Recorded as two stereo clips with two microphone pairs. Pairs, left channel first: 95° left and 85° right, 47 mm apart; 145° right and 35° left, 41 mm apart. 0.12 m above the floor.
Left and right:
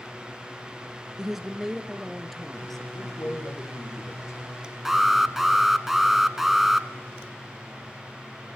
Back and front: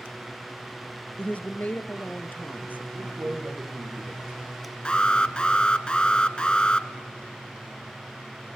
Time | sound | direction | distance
1.2 | a woman speaking | 155° right | 1.2 m
2.9 | a man speaking | 85° left | 6.5 m
4.8 | an alarm | 155° right | 1.0 m